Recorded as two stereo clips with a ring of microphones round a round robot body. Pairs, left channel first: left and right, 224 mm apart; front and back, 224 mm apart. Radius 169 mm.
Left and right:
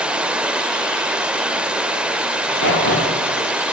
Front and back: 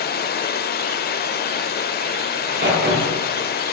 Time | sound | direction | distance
0.0 | running water | 5° right | 1.1 m
2.3 | a crack | 140° left | 8.5 m